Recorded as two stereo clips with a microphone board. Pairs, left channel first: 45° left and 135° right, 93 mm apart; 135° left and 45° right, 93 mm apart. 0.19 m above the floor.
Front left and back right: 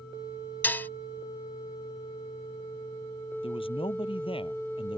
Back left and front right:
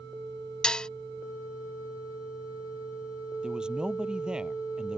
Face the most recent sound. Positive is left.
turn(degrees=35)